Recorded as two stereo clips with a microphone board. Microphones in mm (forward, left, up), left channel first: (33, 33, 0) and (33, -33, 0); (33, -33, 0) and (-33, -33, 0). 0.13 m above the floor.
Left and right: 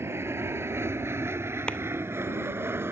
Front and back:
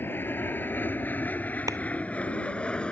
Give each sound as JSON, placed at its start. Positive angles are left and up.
{"t": 0.0, "sound": "an aircraft", "azimuth_deg": -50}
{"t": 1.7, "sound": "a clap", "azimuth_deg": 165}